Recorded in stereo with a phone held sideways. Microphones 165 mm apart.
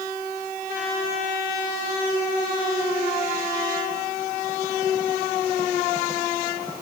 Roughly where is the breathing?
No breathing in this recording.